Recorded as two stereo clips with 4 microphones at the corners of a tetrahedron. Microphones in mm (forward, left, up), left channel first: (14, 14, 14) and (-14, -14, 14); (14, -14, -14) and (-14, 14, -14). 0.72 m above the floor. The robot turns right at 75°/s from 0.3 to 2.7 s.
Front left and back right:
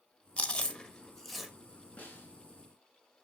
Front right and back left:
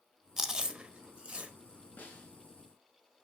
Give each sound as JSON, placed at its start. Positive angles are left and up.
{"t": 0.4, "sound": "chewing", "azimuth_deg": 60, "distance_m": 1.2}
{"t": 2.0, "sound": "a snare drum", "azimuth_deg": -5, "distance_m": 3.0}